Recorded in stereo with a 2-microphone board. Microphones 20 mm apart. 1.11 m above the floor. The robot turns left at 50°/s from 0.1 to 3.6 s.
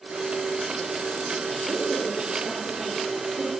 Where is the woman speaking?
20° left (ahead or behind), 3 m; by 3.5 s 75° right (ahead or behind), 3 m.